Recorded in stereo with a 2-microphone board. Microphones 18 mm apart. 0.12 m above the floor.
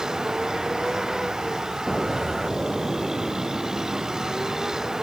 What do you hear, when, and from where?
0.0 s a vehicle: 35° right (ahead or behind)
1.9 s an explosion: 15° right (ahead or behind)